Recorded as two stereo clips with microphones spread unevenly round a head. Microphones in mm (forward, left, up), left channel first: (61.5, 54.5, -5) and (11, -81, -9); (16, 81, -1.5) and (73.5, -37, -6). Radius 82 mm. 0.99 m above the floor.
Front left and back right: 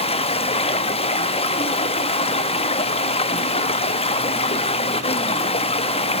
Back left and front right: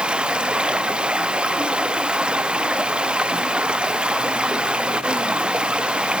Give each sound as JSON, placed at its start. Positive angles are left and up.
{"t": 0.0, "sound": "running water", "azimuth_deg": 20, "distance_m": 0.8}